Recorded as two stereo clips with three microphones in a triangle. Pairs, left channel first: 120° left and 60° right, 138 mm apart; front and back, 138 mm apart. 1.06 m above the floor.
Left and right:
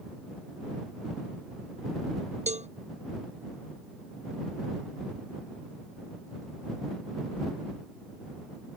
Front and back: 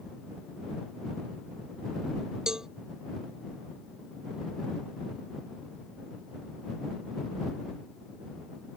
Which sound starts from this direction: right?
A cowbell, at 2.5 s.